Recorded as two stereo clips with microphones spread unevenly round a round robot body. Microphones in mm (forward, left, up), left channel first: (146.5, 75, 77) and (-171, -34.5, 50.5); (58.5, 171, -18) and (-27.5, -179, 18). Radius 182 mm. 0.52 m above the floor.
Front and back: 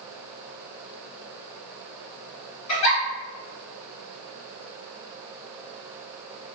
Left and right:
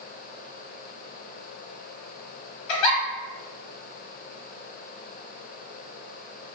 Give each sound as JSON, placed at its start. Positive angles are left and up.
{"t": 2.7, "sound": "a giggle", "azimuth_deg": 60, "distance_m": 0.9}